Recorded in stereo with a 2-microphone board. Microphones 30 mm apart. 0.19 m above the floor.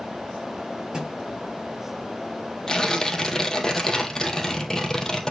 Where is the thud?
25° right (ahead or behind), 5 m.